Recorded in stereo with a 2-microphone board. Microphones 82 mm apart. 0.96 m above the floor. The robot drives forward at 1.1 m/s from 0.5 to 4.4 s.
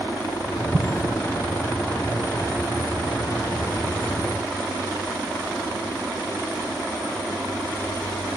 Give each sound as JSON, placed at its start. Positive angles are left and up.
{"t": 0.7, "sound": "an explosion", "side_deg": -15}